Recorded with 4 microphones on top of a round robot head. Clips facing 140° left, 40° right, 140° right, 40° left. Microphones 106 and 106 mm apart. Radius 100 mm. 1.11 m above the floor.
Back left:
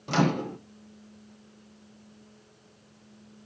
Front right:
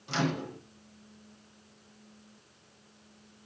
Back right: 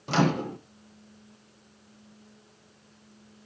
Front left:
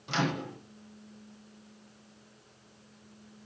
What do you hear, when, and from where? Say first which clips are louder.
0.1 s a microwave: back left 6 dB, back right 7 dB; 175° left, 0.8 m